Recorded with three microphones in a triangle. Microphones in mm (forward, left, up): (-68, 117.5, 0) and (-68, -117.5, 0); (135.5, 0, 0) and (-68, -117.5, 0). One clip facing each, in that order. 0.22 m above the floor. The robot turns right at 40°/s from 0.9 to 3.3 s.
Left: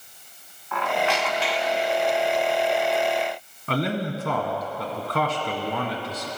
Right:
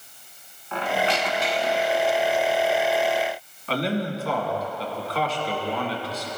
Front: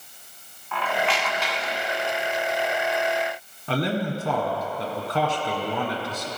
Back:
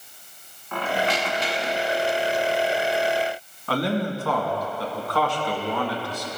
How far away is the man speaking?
About 1.6 m.